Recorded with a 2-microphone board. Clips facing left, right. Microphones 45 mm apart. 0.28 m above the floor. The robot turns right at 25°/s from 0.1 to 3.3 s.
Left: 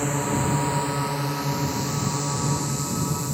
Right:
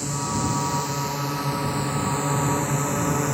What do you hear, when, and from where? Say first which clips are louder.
0.0 s a drone: left 2 dB; 35° left (ahead or behind); by 3.3 s 50° right (ahead or behind)